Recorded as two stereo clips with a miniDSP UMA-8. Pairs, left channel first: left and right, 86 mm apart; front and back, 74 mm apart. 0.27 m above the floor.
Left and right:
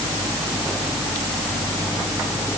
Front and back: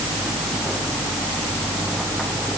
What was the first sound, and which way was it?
Only background noise.